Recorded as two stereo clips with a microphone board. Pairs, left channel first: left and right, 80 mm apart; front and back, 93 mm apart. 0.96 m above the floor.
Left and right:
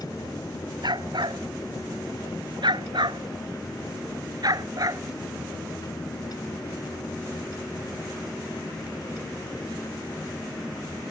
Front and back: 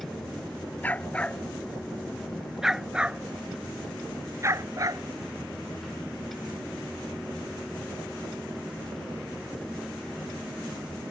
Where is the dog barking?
70° right; by 5.0 s 130° right.